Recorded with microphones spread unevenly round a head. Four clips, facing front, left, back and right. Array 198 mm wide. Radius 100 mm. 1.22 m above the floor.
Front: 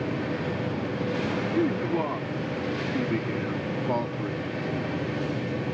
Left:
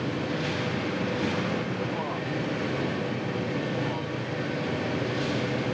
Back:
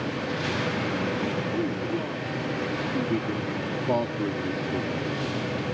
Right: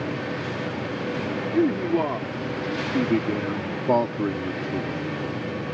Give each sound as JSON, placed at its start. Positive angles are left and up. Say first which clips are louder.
{"t": 1.5, "sound": "a man speaking", "louder": "right 9 dB, front 3 dB", "azimuth_deg": -70}